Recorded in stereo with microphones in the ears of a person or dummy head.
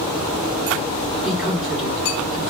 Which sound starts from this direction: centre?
A woman speaking, at 1.2 s.